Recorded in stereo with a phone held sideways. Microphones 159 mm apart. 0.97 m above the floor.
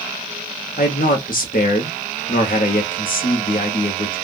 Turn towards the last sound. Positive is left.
turn(degrees=65)  # may be behind; listen again after turning